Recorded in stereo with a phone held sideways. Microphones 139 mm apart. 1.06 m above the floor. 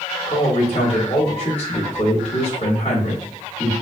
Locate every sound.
0.3 s a man speaking: 50° left (ahead or behind), 1.7 m